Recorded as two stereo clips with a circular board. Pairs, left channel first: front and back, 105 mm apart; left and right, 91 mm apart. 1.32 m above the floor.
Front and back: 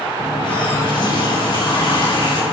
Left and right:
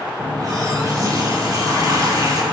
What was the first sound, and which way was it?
A running tap, 40° right.